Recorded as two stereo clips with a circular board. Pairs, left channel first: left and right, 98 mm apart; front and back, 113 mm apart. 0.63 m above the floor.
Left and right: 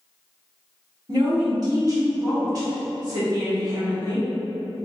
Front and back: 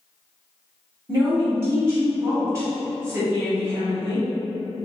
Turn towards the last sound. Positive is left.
turn(degrees=-125)